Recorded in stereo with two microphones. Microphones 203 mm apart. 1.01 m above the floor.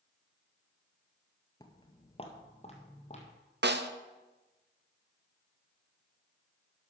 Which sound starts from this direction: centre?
Footsteps, at 1.6 s.